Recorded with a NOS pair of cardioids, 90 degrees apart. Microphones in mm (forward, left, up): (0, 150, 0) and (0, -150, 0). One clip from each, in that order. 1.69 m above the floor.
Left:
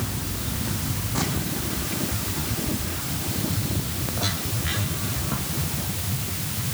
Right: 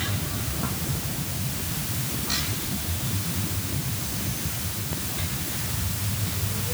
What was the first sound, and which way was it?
Only background noise.